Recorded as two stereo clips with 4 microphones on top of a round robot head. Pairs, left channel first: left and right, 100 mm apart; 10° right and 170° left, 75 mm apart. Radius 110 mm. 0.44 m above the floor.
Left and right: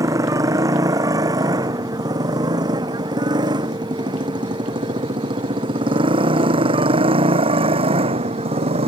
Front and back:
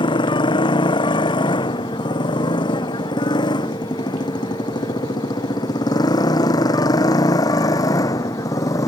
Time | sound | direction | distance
0.0 | a motorcycle | 30° right | ?